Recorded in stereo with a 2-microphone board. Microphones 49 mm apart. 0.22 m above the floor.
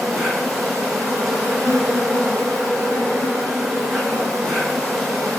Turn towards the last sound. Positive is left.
turn(degrees=15)  # may be behind; listen again after turning